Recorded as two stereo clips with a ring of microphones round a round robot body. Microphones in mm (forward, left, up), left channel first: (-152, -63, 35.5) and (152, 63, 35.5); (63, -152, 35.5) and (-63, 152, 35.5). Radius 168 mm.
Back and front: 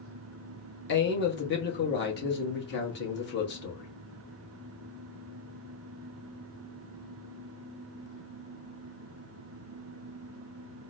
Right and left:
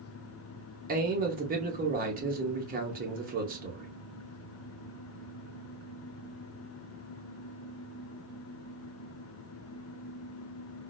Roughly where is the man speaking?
Behind.